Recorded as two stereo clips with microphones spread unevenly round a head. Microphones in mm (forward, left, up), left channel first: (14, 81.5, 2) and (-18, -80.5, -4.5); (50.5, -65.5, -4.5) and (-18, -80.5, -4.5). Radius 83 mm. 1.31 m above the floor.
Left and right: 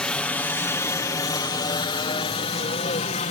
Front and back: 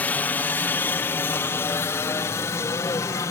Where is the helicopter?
Straight ahead; by 3.3 s 45° left.